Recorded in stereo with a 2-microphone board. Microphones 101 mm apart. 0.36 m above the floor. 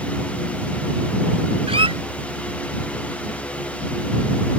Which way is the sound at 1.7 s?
70° right (ahead or behind).